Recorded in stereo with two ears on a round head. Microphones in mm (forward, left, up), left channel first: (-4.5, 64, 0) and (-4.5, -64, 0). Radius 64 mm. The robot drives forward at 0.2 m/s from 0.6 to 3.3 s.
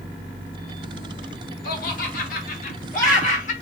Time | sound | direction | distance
1.6 | laughter | 70° left (ahead or behind) | 1.1 m